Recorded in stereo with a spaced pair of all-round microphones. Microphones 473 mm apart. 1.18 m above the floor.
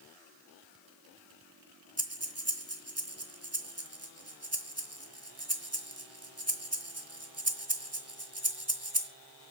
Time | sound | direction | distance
2.0 | breathing | 30° right (ahead or behind) | 1.8 m